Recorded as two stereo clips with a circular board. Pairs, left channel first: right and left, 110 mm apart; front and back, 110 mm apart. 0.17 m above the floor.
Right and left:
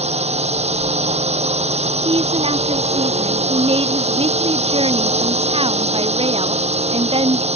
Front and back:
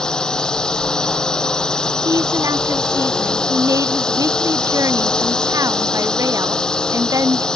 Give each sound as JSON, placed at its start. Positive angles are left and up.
{"t": 0.0, "sound": "a drone", "azimuth_deg": 85}
{"t": 2.0, "sound": "a woman speaking", "azimuth_deg": 120}